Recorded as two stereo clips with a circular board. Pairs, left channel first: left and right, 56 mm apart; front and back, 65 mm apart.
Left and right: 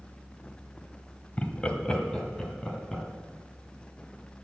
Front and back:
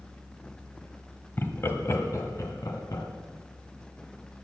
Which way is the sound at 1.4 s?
35° left.